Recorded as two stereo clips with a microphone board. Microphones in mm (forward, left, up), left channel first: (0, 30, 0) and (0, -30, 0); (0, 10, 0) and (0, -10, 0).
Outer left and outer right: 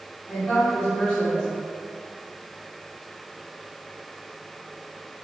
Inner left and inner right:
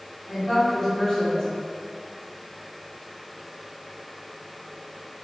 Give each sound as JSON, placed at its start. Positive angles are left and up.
{"t": 0.3, "sound": "a woman speaking", "side_deg": 20, "distance_m": 1.7}